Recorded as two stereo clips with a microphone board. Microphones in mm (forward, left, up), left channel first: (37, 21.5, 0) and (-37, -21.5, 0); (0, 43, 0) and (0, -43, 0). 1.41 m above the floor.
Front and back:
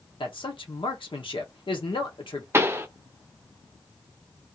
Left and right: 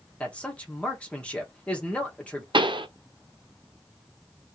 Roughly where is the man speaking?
Ahead.